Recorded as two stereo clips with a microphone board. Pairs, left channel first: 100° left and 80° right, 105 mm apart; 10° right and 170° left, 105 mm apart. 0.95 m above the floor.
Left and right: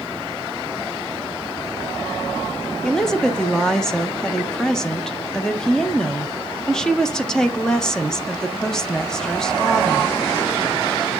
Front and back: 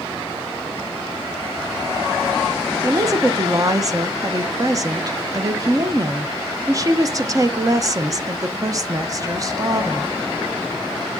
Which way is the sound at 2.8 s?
175° left.